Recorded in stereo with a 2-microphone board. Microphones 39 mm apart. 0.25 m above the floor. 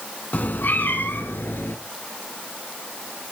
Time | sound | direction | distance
0.3 | a cat meowing | 45° left (ahead or behind) | 1.1 m